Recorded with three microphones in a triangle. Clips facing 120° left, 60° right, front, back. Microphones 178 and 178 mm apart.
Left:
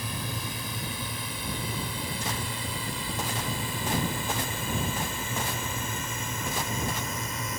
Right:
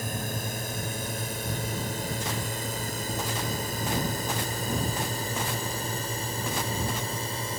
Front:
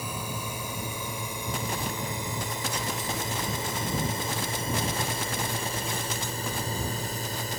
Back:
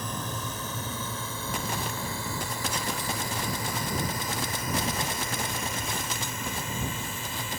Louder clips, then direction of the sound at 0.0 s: Right 2 dB, even; 75° right.